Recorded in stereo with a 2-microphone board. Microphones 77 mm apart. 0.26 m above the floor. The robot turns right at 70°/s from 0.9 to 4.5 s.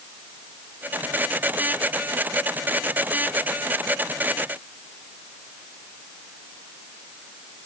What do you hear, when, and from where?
Only background noise.